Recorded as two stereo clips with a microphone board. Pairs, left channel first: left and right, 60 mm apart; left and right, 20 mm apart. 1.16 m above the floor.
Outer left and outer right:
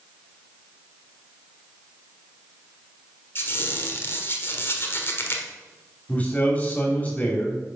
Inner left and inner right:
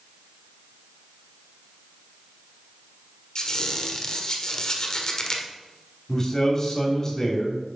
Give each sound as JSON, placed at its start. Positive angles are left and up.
{"t": 3.4, "sound": "a squeak", "side_deg": 40, "distance_m": 1.3}
{"t": 6.1, "sound": "a man speaking", "side_deg": 30, "distance_m": 3.0}